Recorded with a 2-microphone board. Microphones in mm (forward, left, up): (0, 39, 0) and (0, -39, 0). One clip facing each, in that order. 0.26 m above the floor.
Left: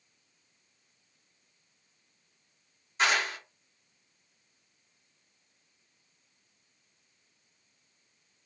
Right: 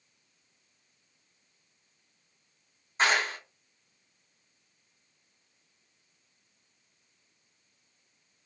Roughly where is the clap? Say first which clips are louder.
Right 1 dB; right.